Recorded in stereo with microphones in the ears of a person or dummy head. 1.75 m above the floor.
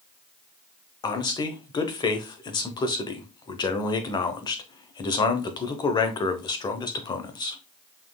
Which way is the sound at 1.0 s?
25° left (ahead or behind).